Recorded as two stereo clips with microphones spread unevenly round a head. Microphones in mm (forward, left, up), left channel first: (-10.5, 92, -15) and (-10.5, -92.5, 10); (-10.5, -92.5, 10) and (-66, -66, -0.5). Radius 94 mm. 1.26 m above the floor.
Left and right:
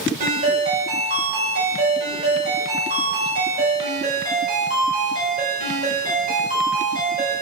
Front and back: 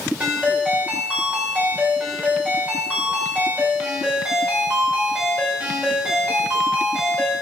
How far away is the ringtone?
About 2.5 m.